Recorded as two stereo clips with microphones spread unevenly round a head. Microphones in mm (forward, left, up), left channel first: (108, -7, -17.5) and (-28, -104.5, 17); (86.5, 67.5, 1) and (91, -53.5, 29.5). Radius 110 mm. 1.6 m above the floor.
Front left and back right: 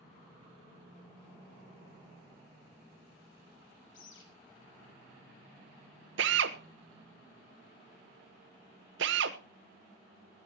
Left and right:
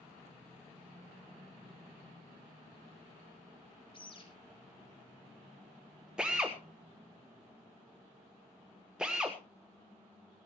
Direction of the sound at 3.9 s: 45° left.